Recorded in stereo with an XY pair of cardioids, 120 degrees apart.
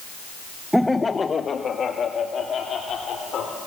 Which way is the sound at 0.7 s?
5° right.